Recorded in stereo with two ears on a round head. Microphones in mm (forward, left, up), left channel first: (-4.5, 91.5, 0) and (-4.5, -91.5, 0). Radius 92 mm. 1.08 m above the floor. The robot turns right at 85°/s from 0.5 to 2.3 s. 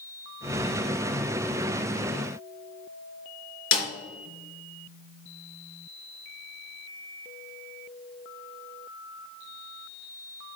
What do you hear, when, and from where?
3.7 s a snare drum: 75° left (ahead or behind), 3.5 m